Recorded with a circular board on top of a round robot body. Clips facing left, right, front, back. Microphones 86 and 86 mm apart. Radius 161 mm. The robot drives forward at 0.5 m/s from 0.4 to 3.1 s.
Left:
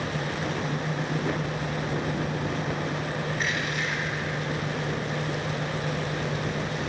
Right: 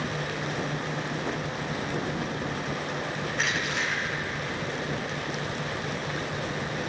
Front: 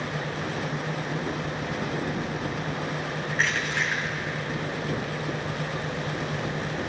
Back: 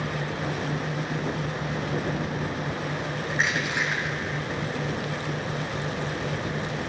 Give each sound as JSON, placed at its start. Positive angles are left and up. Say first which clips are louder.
{"t": 3.3, "sound": "crushing", "louder": "even, back 1 dB", "azimuth_deg": -105, "distance_m": 4.0}